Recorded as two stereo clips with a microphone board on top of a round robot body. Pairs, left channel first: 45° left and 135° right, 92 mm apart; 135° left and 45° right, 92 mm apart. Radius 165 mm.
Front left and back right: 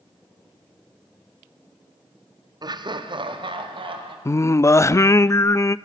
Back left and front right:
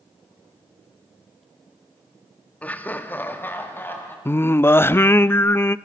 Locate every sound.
2.6 s laughter: 155° right, 1.2 m; by 4.2 s 160° right, 3 m
4.2 s singing: 85° left, 0.6 m